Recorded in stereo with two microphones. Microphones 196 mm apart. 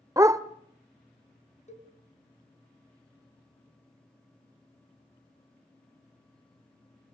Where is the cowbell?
35° left (ahead or behind), 3.5 m.